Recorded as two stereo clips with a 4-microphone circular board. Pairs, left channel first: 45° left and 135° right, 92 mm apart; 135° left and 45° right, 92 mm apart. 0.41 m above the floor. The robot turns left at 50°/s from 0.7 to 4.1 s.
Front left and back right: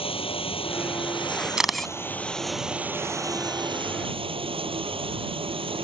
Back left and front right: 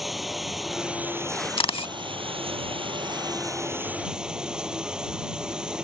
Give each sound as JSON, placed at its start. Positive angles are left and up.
{"t": 0.0, "sound": "running water", "azimuth_deg": 45}
{"t": 1.6, "sound": "a camera shutter", "azimuth_deg": 145}